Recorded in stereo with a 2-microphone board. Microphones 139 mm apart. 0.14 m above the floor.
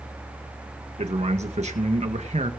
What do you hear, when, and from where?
1.0 s a man speaking: 55° right (ahead or behind), 1.8 m